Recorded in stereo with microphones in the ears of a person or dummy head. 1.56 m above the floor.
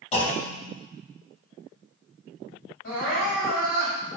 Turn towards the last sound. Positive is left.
turn(degrees=80)